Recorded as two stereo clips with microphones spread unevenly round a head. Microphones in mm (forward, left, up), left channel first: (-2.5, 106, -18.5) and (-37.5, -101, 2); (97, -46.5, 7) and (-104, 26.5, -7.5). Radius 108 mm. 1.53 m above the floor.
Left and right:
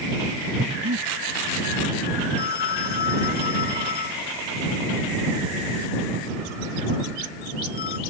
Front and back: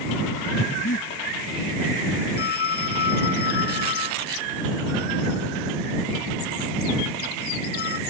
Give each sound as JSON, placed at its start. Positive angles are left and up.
{"t": 0.6, "sound": "breathing", "azimuth_deg": -70}
{"t": 2.4, "sound": "a phone ringing", "azimuth_deg": 30}